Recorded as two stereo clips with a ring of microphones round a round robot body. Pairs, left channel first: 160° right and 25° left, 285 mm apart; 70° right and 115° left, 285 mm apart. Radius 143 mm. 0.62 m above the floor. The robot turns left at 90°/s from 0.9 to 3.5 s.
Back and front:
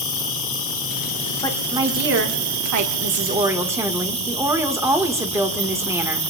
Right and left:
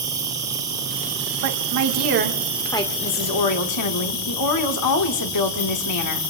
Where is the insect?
170° right, 5.5 m; by 6.3 s 45° right, 5.5 m.